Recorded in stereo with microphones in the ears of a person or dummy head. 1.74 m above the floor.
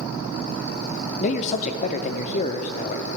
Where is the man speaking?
40° left (ahead or behind), 0.8 m.